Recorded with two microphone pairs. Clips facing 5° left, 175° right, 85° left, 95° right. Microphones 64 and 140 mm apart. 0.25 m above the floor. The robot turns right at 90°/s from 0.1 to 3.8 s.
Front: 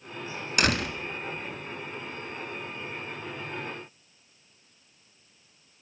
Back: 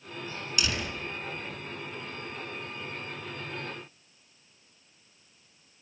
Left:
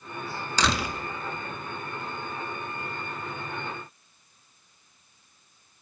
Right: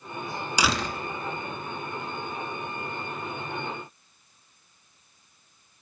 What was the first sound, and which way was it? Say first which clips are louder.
A door slam: front 7 dB, even; 20° right.